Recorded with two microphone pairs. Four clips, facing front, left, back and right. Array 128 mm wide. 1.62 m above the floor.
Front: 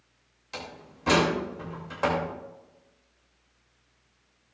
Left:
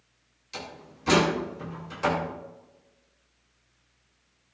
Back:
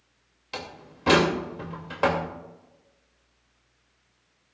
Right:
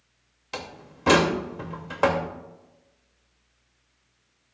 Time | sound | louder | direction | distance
0.5 | a door slam | right 3 dB, back 2 dB | 105° right | 2.5 m